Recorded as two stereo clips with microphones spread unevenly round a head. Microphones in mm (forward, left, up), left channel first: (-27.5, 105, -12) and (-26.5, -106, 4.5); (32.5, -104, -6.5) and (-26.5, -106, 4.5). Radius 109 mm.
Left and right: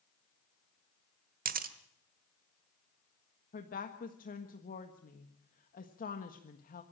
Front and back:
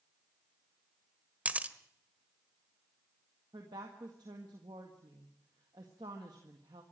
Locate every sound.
1.4 s a camera shutter: 125° right, 1.4 m
3.5 s a woman speaking: 140° left, 1.5 m